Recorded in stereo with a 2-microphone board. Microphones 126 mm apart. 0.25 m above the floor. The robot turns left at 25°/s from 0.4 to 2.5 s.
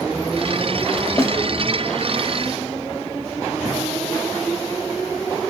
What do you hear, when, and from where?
1.2 s a snare drum: 20° left (ahead or behind), 0.6 m; by 1.3 s 25° left (ahead or behind), 0.6 m